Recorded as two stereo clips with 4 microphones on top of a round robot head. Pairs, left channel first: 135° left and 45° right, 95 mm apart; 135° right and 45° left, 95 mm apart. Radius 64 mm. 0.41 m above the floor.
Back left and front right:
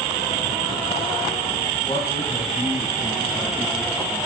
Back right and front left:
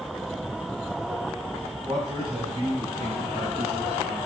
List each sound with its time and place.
1.9 s a man speaking: 95° left, 2.5 m; by 4.2 s 70° left, 4 m